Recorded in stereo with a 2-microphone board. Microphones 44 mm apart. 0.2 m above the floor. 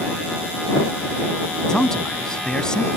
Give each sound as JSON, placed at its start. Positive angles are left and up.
{"t": 1.7, "sound": "a man speaking", "side_deg": 15}